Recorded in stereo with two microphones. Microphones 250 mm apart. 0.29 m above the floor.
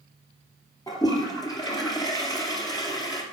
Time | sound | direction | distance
0.9 | a toilet flushing | 15° left (ahead or behind) | 2.5 m